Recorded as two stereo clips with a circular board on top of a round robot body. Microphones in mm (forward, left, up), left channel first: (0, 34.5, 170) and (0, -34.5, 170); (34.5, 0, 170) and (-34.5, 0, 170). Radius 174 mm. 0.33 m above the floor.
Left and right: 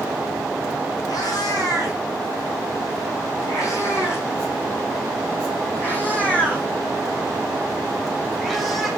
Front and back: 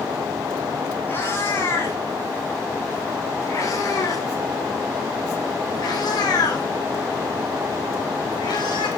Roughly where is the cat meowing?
Ahead left.